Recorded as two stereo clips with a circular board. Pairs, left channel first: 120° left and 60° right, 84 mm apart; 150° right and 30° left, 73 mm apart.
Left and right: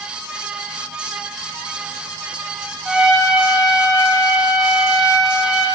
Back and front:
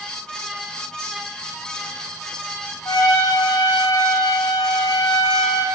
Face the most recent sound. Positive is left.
turn(degrees=-145)